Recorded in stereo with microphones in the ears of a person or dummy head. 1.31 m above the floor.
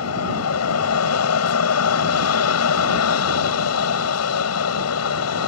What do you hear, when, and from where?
0.0 s an aircraft: 80° left